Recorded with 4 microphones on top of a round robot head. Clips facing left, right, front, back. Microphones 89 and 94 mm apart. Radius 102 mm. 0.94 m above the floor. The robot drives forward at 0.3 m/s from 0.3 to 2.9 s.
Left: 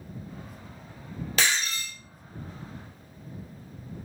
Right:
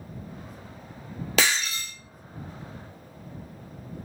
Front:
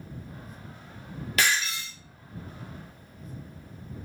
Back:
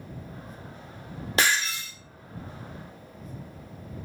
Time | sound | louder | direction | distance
1.4 | breaking glass | right 2 dB, back 2 dB | 110° right | 0.6 m